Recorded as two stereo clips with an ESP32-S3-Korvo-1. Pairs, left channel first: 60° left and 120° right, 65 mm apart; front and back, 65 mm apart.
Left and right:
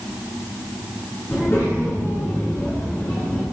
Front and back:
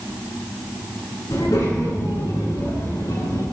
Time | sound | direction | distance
1.3 | a child speaking | 10° left | 8.5 m